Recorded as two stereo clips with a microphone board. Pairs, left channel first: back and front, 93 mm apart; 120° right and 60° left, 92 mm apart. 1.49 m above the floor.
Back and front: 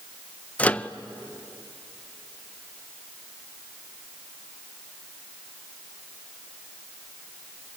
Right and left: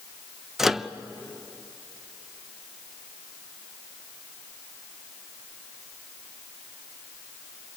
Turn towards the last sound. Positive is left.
turn(degrees=135)